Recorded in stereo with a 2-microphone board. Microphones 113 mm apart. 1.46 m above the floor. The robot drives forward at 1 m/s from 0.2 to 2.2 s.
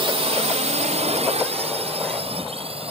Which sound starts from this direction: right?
A drone, at 0.0 s.